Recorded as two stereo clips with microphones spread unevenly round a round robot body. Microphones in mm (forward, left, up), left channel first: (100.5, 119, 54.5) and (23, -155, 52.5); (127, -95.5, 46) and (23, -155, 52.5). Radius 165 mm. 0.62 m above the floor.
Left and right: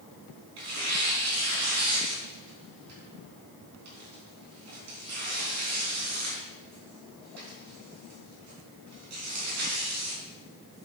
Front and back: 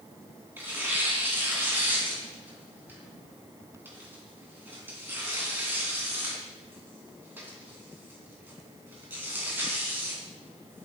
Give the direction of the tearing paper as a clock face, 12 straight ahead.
3 o'clock.